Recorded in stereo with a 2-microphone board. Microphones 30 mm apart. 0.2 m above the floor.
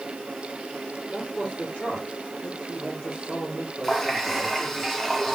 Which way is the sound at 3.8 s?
10° left (ahead or behind).